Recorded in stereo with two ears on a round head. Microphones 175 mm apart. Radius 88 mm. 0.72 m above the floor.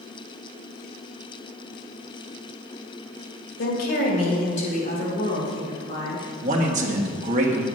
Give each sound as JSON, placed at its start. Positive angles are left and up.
{"t": 3.6, "sound": "a woman speaking", "side_deg": 55, "distance_m": 2.5}
{"t": 6.4, "sound": "a man speaking", "side_deg": -40, "distance_m": 1.5}